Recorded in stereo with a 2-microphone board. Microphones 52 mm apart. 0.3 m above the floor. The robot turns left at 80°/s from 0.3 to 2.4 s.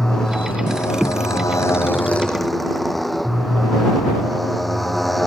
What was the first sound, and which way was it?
A motorcycle, 170° left.